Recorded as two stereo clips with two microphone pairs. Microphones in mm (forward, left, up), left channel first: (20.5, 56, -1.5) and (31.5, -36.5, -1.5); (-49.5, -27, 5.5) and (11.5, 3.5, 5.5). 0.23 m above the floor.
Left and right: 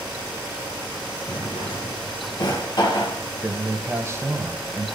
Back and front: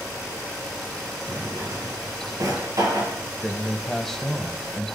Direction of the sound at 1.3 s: 60° left.